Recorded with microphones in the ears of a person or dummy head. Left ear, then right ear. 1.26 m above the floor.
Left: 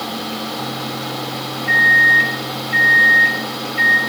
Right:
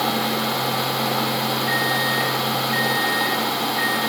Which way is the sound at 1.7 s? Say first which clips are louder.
Left 14 dB; 20° left (ahead or behind).